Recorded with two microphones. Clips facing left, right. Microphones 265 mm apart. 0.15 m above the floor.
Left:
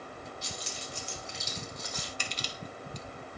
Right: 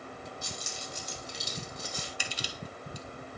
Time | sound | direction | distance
0.4 | keys jangling | 50° right (ahead or behind) | 4 m
2.2 | crushing | 10° right (ahead or behind) | 1.4 m